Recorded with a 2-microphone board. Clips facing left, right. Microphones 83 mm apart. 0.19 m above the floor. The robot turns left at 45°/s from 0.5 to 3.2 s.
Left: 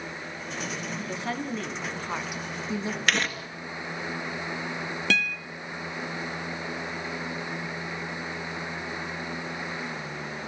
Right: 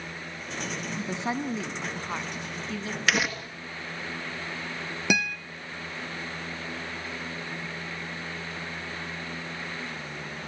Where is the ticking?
No ticking in this recording.